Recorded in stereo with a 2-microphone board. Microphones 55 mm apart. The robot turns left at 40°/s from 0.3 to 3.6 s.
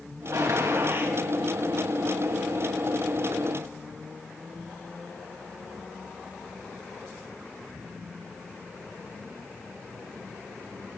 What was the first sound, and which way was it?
A gunshot, 100° right.